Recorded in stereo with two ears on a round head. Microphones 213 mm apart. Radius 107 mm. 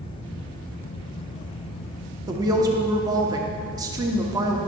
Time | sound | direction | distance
2.3 | a woman speaking | 15° right (ahead or behind) | 1.0 m